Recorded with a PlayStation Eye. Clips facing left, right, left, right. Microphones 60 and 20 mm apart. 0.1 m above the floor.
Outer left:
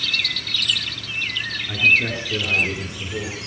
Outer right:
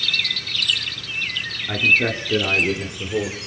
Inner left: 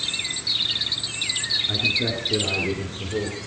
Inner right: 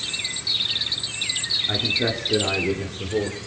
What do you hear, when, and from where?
1.7 s a man speaking: 35° right (ahead or behind), 2.0 m; by 3.4 s 40° right (ahead or behind), 2.5 m